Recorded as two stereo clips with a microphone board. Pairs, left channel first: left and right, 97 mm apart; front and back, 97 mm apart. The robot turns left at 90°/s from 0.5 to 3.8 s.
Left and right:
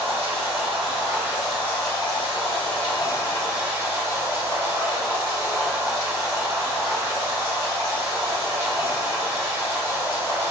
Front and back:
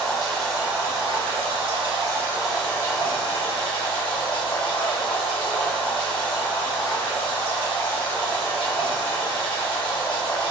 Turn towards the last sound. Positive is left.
turn(degrees=-25)